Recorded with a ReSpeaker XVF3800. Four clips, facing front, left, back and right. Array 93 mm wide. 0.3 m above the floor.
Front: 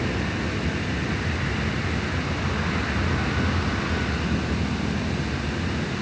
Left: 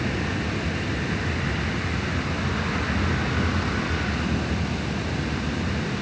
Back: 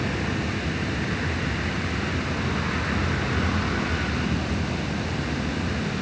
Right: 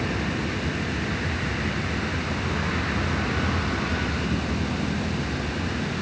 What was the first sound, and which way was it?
Only background noise.